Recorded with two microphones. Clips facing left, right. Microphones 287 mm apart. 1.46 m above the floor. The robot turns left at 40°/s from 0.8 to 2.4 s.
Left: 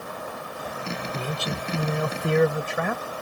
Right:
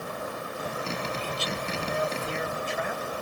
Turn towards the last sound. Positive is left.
turn(degrees=80)